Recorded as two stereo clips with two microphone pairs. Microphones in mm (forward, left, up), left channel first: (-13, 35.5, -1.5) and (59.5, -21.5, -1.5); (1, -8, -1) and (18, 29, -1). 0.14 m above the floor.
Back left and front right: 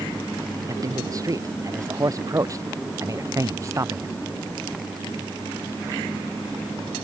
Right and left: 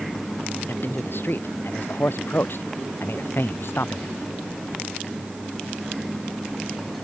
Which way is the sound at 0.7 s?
85° right.